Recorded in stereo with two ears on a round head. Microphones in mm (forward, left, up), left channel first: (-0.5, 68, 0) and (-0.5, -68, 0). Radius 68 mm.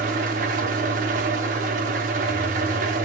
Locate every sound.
0.0 s an engine running: 60° right (ahead or behind), 0.8 m